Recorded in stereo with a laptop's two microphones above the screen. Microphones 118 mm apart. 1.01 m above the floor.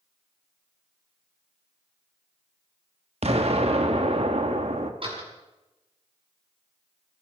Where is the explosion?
60° right (ahead or behind), 1.6 m.